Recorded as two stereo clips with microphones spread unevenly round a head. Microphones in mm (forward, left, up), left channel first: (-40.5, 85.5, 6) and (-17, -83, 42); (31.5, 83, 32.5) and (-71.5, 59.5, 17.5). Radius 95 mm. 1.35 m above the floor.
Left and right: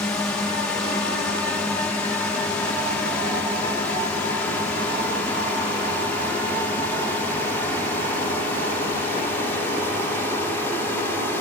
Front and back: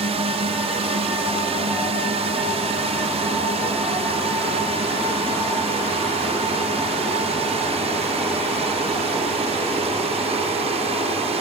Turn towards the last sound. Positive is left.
turn(degrees=175)